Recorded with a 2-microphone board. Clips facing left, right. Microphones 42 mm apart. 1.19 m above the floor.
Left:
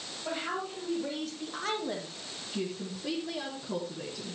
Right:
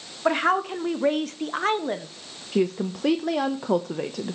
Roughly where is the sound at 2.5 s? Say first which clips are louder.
Right 12 dB; right.